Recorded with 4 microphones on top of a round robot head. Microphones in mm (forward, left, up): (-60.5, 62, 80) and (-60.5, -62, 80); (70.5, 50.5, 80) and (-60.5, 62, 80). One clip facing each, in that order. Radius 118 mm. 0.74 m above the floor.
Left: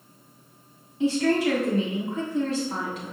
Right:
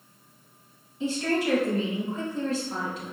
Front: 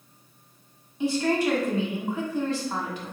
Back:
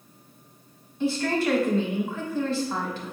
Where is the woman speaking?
70° left, 2.0 m.